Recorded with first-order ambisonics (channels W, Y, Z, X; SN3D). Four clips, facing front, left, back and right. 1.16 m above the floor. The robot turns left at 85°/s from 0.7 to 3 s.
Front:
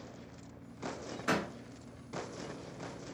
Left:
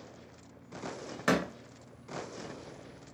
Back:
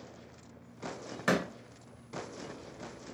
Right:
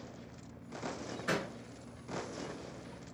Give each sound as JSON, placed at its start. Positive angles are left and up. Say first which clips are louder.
{"t": 1.3, "sound": "a door slam", "louder": "left 7 dB, back 3 dB", "azimuth_deg": 125, "distance_m": 0.7}